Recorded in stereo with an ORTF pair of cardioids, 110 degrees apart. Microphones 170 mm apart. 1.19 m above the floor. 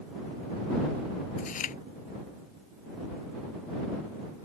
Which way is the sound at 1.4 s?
50° left.